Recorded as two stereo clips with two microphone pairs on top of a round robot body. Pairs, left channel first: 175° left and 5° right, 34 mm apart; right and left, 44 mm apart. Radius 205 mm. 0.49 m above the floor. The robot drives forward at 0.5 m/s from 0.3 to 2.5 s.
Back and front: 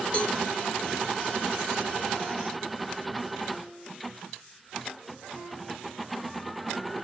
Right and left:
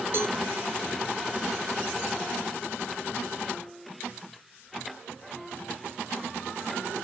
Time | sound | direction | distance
0.1 | a cowbell | 115° left | 0.8 m